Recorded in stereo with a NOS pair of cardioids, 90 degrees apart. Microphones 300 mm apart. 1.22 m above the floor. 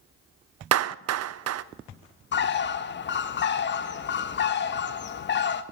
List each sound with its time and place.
0.7 s a clap: 55° right, 0.6 m
2.3 s a bird: 40° left, 0.9 m